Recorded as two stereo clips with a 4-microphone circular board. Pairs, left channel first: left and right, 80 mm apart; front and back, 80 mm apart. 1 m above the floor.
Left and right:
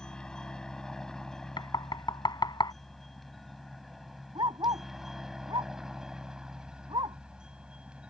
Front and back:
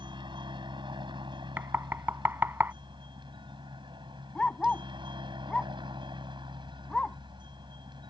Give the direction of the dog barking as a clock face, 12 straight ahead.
3 o'clock.